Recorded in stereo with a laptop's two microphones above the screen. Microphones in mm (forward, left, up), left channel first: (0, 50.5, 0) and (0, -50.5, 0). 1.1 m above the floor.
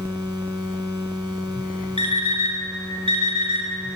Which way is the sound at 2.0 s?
65° right (ahead or behind).